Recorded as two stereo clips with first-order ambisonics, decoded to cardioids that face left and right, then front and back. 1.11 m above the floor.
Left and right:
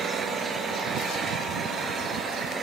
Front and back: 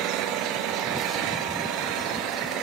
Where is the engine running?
160° right, 4.5 m.